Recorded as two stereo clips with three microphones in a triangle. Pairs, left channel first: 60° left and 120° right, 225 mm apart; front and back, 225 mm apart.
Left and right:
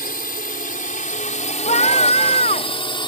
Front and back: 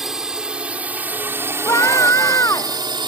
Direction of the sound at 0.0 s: 90° left.